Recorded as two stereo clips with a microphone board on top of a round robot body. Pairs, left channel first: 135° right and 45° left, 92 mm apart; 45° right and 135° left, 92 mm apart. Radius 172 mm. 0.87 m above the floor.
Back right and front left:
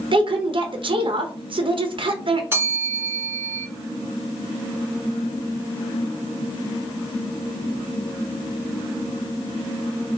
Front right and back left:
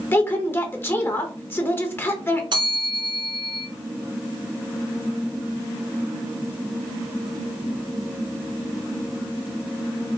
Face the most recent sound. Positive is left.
turn(degrees=110)